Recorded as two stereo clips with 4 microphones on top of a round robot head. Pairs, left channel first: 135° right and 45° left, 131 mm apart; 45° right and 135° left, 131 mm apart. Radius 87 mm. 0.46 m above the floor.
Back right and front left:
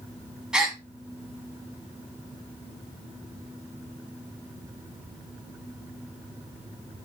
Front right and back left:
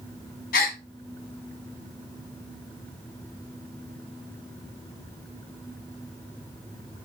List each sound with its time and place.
0.5 s a gasp: 40° right, 1.6 m